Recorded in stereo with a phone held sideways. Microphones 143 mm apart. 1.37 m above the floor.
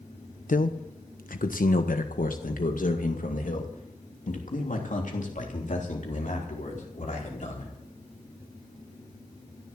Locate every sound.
0.5 s a man speaking: 70° left (ahead or behind), 1.0 m; by 7.7 s 60° left (ahead or behind), 4.5 m